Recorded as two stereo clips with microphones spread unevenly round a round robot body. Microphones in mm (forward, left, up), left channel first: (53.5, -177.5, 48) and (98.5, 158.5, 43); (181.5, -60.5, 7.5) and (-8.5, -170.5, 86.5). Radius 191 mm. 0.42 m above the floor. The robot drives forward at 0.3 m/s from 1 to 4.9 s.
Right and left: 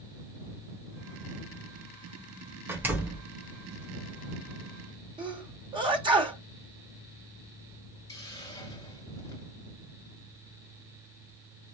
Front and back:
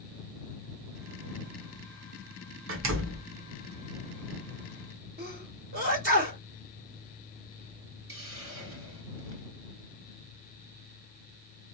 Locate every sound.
2.7 s a door slam: 165° left, 0.7 m; by 3.3 s 170° left, 0.8 m
5.2 s a sneeze: 155° left, 1.3 m
8.1 s a hiss: straight behind, 0.7 m